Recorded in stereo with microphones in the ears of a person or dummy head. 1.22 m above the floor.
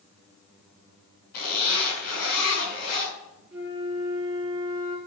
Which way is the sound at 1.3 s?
45° left (ahead or behind).